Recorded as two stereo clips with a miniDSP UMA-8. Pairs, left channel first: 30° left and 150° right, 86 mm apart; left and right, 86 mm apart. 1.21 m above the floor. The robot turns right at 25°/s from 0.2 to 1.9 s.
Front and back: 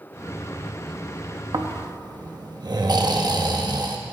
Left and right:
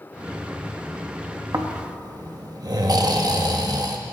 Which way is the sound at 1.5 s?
135° right.